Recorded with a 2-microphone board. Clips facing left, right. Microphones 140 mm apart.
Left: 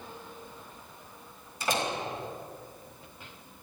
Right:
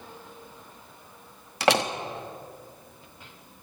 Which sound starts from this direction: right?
A door slam, at 1.6 s.